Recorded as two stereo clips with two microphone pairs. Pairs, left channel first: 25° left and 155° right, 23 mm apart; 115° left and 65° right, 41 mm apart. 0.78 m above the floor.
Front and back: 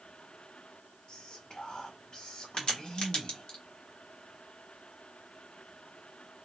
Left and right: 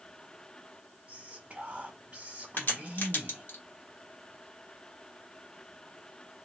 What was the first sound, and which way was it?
Whispering, 20° right.